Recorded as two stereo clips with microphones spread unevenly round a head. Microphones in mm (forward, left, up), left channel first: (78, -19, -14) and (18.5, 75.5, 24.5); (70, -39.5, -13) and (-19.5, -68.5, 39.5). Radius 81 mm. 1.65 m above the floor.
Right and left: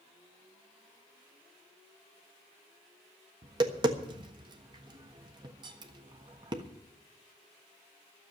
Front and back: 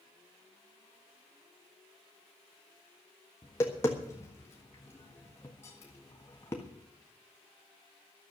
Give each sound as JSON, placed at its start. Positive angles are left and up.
{"t": 3.4, "sound": "tapping", "azimuth_deg": 110, "distance_m": 1.4}